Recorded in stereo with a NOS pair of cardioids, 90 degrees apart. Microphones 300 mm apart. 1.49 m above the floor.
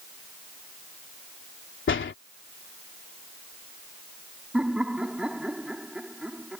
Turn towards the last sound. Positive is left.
turn(degrees=-5)